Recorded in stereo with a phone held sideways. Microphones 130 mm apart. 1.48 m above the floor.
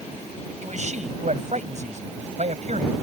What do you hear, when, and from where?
0.6 s a man speaking: 65° right (ahead or behind)